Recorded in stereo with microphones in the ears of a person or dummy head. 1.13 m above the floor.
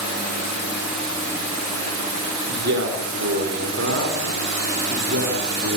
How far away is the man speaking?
About 4 m.